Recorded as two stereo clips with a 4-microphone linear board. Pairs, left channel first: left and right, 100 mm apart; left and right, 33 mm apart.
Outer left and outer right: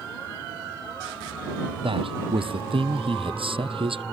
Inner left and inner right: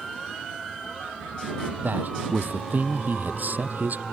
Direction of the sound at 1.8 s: 65° right (ahead or behind).